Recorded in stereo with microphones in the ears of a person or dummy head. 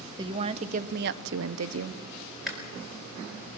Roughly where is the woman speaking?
Right.